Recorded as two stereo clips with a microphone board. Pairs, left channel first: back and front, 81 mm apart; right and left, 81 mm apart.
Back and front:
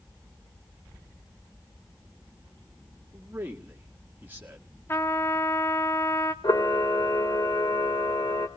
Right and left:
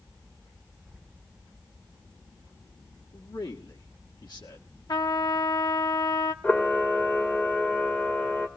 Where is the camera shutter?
160° right, 1.8 m.